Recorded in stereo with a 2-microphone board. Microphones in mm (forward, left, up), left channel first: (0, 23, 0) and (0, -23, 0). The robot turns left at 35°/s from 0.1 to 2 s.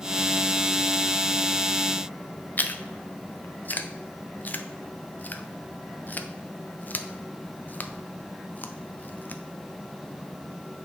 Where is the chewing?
40° left (ahead or behind), 0.6 m.